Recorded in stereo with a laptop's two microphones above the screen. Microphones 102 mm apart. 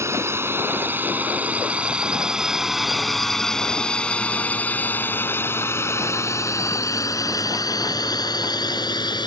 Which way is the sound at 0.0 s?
25° right (ahead or behind).